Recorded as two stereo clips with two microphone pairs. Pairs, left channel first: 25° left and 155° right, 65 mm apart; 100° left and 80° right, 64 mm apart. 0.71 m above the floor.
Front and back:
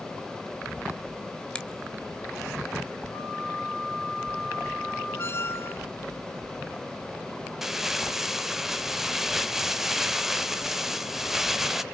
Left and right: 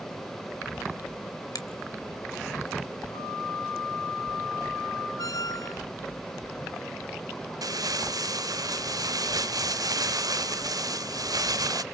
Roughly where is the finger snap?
Left.